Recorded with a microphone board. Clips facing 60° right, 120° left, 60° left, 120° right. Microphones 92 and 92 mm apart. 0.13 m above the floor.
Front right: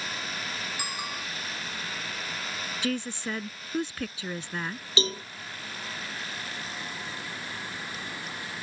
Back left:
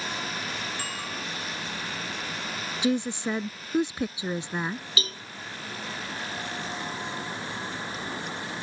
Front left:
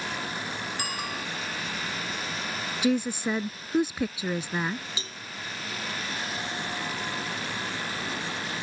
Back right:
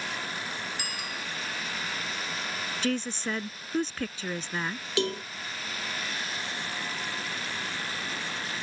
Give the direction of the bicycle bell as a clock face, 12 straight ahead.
11 o'clock.